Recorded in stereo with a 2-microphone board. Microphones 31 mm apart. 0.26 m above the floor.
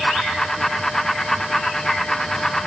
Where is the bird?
No bird in this recording.